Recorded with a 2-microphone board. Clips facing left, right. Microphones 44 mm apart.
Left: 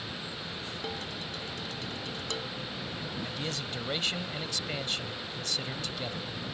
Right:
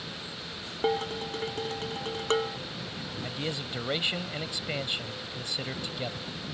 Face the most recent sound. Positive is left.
turn(degrees=-20)  # may be behind; listen again after turning